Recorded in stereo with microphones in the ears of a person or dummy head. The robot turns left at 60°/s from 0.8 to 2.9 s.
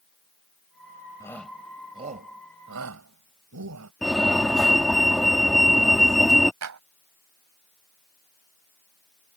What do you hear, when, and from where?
1.2 s a shout: 15° left (ahead or behind); by 3.9 s 85° right
4.0 s a fire alarm: centre (ahead or behind)
6.6 s a clap: 90° right